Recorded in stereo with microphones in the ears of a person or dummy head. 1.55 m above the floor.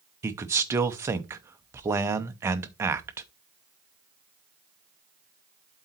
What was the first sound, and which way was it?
A man speaking, 15° right (ahead or behind).